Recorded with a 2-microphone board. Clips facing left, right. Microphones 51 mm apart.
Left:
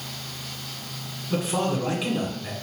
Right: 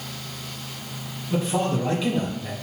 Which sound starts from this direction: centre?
A man speaking, at 1.3 s.